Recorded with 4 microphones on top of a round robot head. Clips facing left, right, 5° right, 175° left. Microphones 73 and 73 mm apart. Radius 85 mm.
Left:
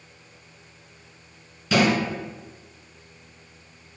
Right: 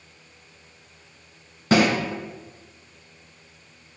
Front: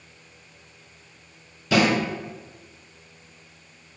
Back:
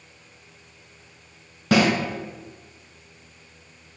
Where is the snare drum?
135° right, 1.8 m.